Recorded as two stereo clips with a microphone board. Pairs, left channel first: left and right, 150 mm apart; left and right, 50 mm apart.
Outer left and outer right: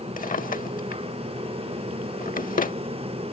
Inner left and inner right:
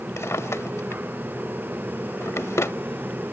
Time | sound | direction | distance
0.2 | a drawer | 65° left (ahead or behind) | ?